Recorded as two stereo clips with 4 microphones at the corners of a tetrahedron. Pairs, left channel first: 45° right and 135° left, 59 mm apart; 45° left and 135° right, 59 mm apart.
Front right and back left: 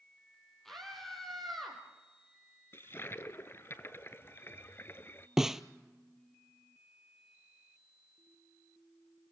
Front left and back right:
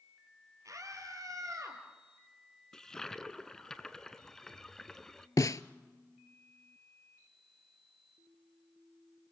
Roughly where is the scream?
Behind right.